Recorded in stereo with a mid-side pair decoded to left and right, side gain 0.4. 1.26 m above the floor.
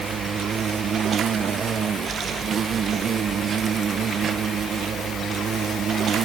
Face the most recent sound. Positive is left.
turn(degrees=-65)